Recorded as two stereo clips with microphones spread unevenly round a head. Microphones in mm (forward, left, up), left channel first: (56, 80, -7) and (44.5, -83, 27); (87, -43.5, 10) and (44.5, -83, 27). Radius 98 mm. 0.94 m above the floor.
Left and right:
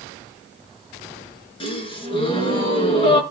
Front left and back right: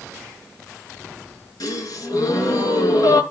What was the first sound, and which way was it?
A gasp, 25° left.